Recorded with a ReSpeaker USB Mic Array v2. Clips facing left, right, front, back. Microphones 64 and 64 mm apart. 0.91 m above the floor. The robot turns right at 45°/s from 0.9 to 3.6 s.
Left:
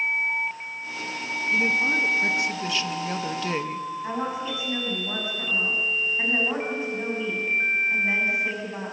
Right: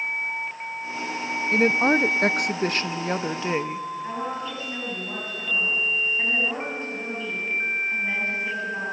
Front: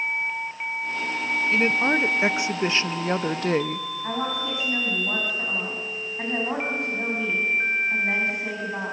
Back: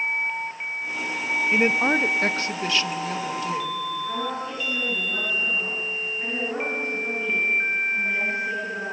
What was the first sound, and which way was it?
A woman speaking, 110° right.